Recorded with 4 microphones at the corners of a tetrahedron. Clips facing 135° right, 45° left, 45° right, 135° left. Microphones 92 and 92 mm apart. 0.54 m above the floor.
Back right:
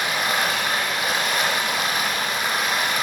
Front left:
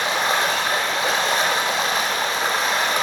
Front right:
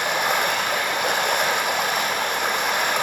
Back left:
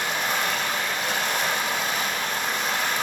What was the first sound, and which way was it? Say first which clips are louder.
Running water: front left 3 dB, front right 4 dB; 15° right.